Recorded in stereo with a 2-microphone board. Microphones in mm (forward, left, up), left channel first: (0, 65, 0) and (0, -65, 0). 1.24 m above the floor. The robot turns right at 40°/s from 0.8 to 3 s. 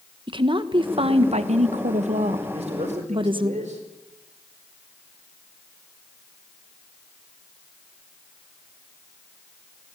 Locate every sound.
0.3 s a woman speaking: 135° right, 1.2 m; by 3.5 s 45° right, 1.2 m
2.5 s a man speaking: 60° right (ahead or behind), 4.5 m; by 3.8 s 80° right, 4.5 m